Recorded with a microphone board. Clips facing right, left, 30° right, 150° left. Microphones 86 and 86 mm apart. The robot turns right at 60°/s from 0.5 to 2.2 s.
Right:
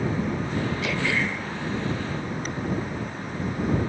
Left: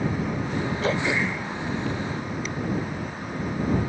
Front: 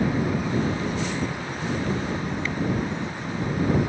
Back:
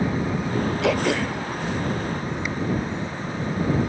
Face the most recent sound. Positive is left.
turn(degrees=-135)